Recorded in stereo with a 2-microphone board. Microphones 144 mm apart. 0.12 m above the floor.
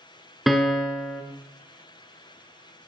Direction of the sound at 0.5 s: Centre (ahead or behind).